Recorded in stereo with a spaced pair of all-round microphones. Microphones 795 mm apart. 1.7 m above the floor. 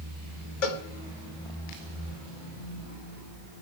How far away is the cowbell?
About 1.0 m.